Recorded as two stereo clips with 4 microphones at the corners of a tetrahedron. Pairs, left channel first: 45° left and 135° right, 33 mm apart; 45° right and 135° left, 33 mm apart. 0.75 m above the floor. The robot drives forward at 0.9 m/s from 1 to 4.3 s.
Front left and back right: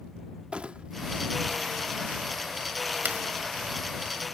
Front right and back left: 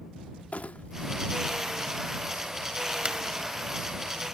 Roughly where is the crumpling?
Right.